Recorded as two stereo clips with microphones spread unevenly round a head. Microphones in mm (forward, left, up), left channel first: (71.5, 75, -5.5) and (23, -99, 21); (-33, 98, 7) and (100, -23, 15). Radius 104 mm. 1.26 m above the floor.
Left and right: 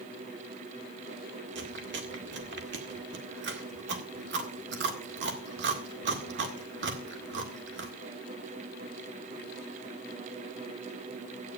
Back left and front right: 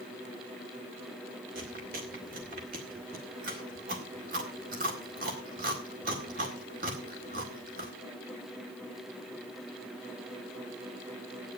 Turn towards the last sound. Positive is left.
turn(degrees=-95)